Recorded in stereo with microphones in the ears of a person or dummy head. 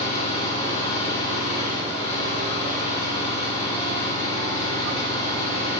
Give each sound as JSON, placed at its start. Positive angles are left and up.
{"t": 0.0, "sound": "an engine running", "side_deg": 35, "distance_m": 10.0}